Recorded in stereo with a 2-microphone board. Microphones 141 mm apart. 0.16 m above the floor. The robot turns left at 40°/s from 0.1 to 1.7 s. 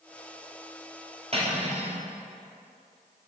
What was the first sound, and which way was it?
Cutlery clinking, 45° right (ahead or behind).